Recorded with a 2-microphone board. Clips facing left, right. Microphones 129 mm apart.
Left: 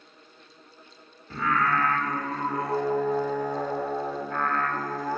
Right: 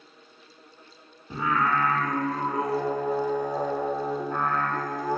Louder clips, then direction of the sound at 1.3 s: Even; 15° right (ahead or behind).